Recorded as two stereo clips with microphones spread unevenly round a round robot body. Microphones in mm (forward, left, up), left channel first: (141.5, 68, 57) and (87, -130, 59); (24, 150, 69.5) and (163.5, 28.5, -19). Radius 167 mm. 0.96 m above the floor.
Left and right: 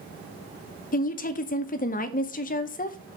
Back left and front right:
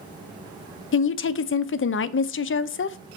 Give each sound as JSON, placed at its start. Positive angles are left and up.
{"t": 0.9, "sound": "a woman speaking", "azimuth_deg": 105, "distance_m": 0.5}